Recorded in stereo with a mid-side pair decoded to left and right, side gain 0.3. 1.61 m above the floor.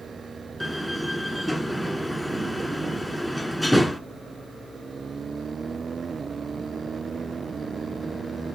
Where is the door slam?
10° left, 1.4 m.